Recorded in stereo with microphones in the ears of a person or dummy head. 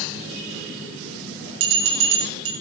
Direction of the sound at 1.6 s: 70° right (ahead or behind).